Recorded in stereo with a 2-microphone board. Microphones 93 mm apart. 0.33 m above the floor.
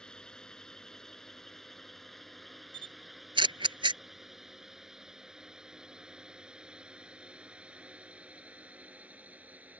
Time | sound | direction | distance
0.0 | a drone | 10° left (ahead or behind) | ?
2.7 | a camera shutter | 65° right (ahead or behind) | ?